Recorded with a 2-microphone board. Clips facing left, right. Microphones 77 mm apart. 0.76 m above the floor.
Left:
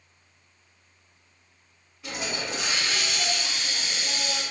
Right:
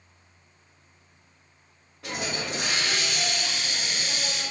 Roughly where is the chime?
I don't hear a chime.